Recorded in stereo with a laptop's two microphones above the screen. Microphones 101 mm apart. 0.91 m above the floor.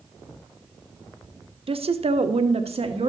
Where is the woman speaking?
60° right (ahead or behind), 0.8 m; by 3.1 s 65° right (ahead or behind), 1.3 m.